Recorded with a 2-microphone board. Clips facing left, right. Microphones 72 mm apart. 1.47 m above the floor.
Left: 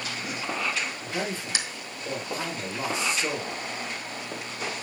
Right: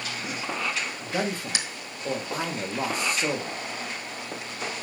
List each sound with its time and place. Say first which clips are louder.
1.0 s a man speaking: right 2 dB; 50° right (ahead or behind), 1.1 m